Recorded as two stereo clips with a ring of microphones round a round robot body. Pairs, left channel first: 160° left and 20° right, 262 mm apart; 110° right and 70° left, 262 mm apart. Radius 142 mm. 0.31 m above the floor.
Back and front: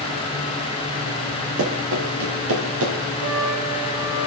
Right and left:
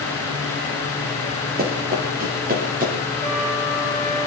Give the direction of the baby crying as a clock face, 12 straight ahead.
I don't hear a baby crying.